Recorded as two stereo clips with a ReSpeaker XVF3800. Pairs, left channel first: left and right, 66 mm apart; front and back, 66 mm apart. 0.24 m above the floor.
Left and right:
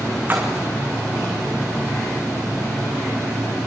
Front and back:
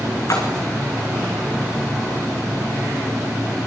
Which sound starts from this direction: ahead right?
A splash, at 0.3 s.